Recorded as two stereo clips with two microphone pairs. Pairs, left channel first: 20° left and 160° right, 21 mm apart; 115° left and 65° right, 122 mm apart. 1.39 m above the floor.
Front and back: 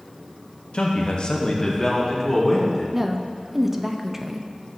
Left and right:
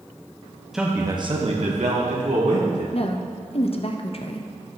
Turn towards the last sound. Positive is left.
turn(degrees=120)